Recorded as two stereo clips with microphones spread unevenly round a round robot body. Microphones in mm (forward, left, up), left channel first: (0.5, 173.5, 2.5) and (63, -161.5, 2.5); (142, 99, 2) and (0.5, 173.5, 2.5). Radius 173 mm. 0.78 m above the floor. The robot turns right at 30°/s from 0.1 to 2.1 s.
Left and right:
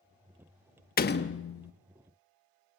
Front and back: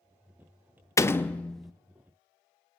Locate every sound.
1.0 s a door slam: 40° left, 1.0 m; by 1.7 s 65° left, 1.0 m